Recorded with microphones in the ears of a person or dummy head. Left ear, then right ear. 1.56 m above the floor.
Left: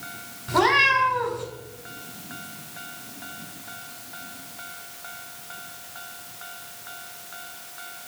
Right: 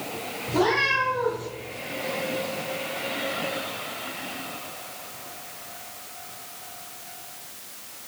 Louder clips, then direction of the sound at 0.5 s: Left 4 dB; 20° left (ahead or behind).